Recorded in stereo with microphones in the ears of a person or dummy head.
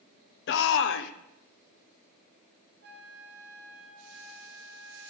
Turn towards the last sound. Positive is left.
turn(degrees=-60)  # may be behind; listen again after turning